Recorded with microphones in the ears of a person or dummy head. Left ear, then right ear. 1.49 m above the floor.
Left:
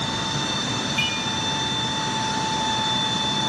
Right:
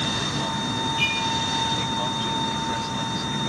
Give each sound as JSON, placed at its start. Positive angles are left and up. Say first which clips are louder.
{"t": 1.0, "sound": "dishes clattering", "louder": "right 1 dB", "side_deg": 60, "distance_m": 8.5}